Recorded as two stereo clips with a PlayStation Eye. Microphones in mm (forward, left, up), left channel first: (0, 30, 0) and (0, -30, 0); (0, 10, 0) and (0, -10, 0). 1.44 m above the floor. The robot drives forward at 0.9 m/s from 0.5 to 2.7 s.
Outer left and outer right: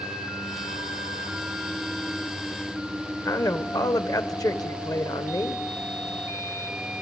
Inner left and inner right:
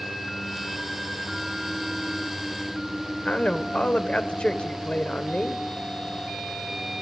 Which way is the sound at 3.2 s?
75° left (ahead or behind).